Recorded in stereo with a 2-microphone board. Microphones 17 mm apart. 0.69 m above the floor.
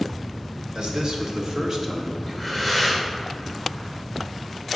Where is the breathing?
15° right (ahead or behind), 2.5 m.